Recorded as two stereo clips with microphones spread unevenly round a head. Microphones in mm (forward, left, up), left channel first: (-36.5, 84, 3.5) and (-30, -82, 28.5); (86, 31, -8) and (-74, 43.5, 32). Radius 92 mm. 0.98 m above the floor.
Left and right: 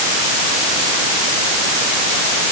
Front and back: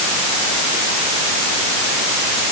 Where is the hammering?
No hammering in this recording.